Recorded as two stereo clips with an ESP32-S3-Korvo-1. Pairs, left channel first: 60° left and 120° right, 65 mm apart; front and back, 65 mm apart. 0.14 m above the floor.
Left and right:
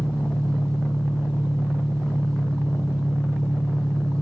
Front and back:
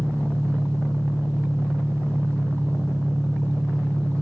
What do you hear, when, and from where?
0.0 s an engine running: 135° left, 6.5 m